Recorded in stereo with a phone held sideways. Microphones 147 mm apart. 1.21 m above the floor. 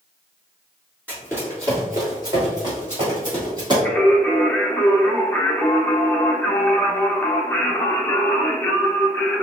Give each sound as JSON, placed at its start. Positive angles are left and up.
{"t": 1.1, "sound": "running footsteps", "side_deg": -15, "distance_m": 1.3}
{"t": 3.9, "sound": "singing", "side_deg": 15, "distance_m": 0.6}